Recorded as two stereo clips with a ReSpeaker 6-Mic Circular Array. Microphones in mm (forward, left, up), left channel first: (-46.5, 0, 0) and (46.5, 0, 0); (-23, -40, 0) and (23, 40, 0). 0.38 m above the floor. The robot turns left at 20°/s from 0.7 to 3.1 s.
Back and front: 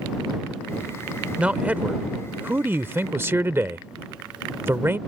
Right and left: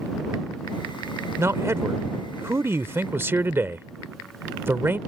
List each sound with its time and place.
1.4 s a man speaking: 65° left; by 5.0 s 30° left